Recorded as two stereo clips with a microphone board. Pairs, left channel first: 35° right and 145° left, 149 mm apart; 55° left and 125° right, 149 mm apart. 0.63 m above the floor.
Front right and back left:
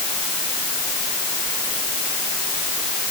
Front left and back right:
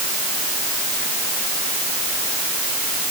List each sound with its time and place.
Only background noise.